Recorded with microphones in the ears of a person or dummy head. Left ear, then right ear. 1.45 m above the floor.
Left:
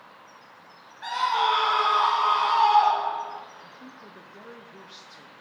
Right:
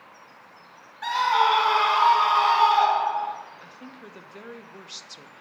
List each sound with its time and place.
1.0 s a scream: 30° right (ahead or behind), 2.5 m; by 3.4 s 55° right (ahead or behind), 3 m
3.6 s a woman speaking: 35° right (ahead or behind), 0.6 m